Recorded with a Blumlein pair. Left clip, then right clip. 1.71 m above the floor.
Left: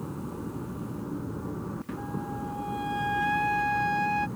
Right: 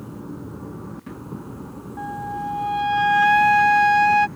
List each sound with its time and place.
2.0 s a flute: 30° right